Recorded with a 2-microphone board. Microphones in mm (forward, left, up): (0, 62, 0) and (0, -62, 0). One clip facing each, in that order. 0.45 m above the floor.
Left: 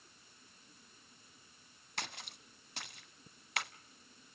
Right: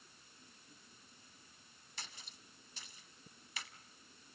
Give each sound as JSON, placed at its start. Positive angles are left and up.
{"t": 2.0, "sound": "a splash", "side_deg": 70, "distance_m": 0.5}